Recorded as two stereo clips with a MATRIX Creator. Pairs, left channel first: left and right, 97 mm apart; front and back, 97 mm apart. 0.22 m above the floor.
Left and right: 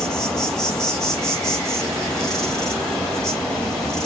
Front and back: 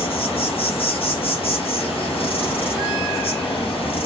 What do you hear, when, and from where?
0.0 s an insect: 5° left, 3 m